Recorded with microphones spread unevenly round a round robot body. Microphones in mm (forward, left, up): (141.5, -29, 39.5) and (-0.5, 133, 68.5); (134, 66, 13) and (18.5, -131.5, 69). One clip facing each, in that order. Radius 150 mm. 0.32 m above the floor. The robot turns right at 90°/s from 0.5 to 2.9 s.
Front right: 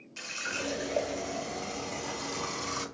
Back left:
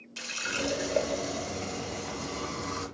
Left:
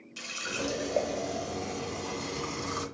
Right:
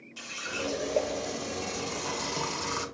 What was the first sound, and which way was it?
A running tap, 90° left.